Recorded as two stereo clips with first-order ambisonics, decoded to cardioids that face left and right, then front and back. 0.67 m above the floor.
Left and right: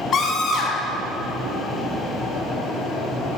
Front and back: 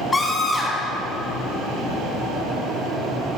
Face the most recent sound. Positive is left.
turn(degrees=65)